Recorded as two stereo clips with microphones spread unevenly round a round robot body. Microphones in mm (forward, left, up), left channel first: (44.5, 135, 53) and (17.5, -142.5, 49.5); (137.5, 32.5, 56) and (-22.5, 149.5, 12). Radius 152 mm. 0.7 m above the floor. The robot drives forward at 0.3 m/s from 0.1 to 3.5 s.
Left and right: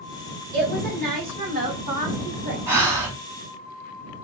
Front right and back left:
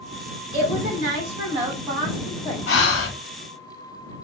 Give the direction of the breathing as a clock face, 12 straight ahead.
12 o'clock.